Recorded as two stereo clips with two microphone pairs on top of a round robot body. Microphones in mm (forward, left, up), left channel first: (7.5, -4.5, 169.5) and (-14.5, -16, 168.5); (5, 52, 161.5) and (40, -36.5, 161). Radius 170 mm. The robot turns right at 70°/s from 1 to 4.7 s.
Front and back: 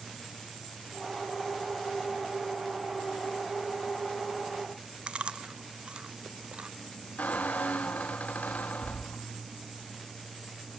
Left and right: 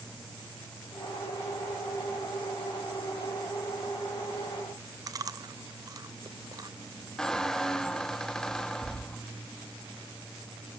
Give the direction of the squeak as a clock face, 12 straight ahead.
11 o'clock.